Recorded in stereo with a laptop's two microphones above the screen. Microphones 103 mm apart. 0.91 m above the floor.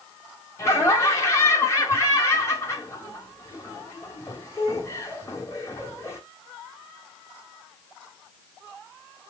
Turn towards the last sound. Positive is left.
turn(degrees=30)  # may be behind; listen again after turning